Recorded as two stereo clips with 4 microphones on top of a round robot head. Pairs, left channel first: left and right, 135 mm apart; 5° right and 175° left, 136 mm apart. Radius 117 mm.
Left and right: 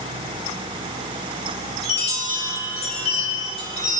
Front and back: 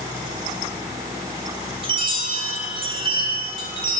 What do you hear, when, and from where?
1.8 s a chime: 125° left, 5.5 m